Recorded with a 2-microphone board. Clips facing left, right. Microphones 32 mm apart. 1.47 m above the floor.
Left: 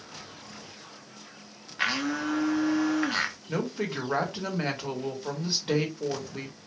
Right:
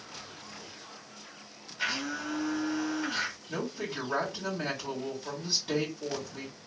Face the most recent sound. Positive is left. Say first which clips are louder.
# left 4 dB
turn(degrees=50)  # may be behind; listen again after turning